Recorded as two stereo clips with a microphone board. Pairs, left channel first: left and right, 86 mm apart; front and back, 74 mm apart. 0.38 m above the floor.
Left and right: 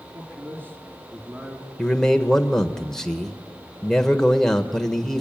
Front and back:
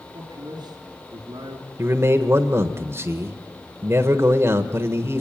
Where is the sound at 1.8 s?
170° left, 1.2 m.